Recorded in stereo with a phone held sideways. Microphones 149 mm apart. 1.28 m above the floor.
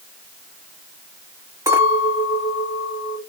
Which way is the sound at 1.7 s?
25° right (ahead or behind).